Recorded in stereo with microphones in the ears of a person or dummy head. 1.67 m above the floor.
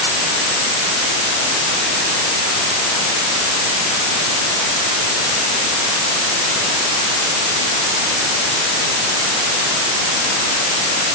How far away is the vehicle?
No vehicle in this recording.